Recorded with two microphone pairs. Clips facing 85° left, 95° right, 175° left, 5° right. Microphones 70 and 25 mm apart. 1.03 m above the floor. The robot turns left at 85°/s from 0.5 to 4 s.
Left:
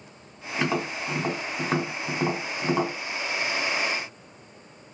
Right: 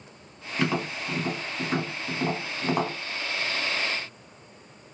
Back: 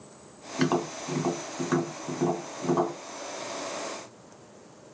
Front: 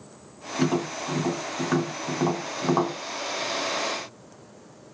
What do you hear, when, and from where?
0.6 s tapping: 165° left, 1.4 m; by 3.0 s 35° right, 1.4 m